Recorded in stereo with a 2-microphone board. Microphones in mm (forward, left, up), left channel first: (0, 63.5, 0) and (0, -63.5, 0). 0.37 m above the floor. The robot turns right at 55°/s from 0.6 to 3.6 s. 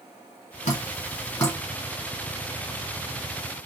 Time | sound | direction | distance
0.7 | dripping | 70° left (ahead or behind) | 2 m